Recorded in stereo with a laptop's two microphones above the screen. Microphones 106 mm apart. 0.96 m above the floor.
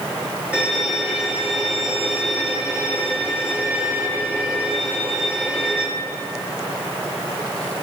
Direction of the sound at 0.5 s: 15° right (ahead or behind).